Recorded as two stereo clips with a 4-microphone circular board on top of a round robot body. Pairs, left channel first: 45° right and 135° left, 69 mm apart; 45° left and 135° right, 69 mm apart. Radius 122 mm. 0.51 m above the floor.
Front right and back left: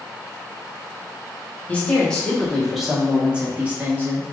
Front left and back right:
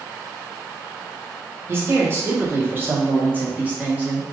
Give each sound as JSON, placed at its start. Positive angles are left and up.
{"t": 1.7, "sound": "a man speaking", "azimuth_deg": -105, "distance_m": 1.6}